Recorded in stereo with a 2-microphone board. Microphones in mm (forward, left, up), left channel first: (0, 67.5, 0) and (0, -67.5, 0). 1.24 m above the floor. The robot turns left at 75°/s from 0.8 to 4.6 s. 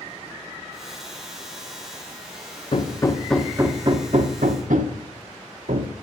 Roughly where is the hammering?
Left.